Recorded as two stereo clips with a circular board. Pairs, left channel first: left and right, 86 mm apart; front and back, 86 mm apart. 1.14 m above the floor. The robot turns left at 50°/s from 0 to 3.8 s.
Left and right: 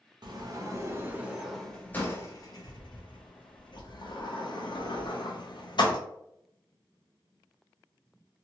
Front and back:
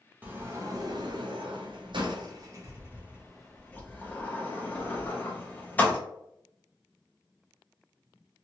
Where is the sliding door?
115° right, 0.7 m; by 6.0 s 70° left, 0.7 m.